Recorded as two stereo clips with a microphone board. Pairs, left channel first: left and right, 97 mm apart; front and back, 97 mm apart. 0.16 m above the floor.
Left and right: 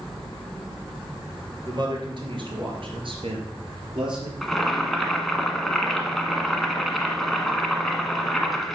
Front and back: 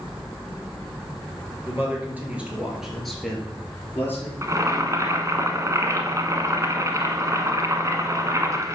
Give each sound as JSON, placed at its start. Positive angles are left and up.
{"t": 1.6, "sound": "a man speaking", "azimuth_deg": -120, "distance_m": 2.5}
{"t": 4.4, "sound": "boiling", "azimuth_deg": 180, "distance_m": 1.2}